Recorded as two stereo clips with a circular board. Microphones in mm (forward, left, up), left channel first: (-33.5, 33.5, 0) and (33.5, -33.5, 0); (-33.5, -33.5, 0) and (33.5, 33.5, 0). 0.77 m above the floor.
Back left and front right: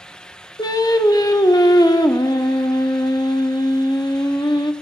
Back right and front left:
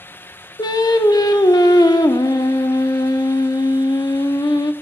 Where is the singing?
Straight behind, 0.6 m.